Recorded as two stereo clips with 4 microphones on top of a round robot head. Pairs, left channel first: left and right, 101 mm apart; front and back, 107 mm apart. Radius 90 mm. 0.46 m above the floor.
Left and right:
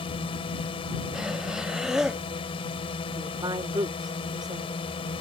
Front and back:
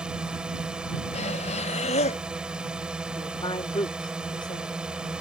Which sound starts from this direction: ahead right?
A woman speaking, at 3.2 s.